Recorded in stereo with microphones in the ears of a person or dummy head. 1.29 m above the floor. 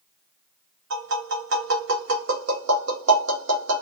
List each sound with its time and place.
0.9 s tapping: 85° right, 0.7 m